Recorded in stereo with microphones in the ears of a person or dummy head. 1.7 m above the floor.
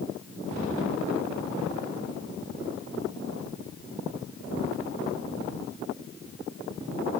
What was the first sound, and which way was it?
Only background noise.